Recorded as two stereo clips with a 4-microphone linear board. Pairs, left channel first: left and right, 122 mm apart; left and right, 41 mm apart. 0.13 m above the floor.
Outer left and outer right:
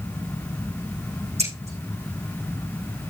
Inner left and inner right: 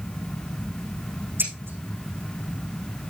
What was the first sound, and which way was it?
Scissors, 70° right (ahead or behind).